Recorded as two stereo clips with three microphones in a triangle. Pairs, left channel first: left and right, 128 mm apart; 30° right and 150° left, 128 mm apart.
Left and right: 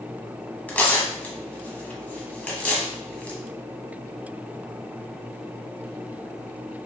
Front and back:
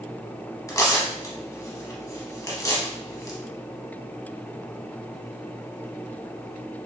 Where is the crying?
I don't hear crying.